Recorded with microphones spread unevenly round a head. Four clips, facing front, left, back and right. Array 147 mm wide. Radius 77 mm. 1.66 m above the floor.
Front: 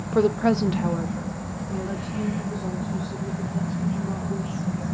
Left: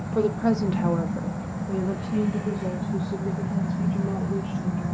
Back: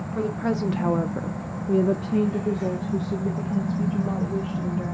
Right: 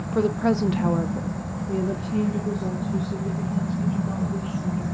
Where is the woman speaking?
5° right, 0.7 m; by 4.9 s 175° left, 3 m.